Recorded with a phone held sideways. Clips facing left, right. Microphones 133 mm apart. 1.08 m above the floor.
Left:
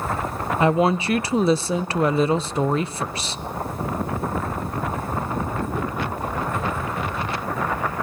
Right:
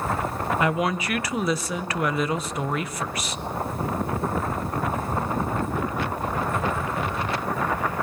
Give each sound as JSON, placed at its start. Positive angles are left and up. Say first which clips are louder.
{"t": 0.6, "sound": "a woman speaking", "louder": "left 7 dB", "side_deg": 30, "distance_m": 0.7}